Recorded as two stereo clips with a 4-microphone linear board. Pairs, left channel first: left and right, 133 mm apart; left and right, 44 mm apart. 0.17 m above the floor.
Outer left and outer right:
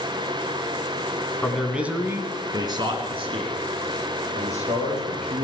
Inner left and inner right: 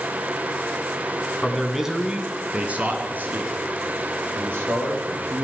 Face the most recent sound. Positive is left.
turn(degrees=-65)  # may be behind; listen again after turning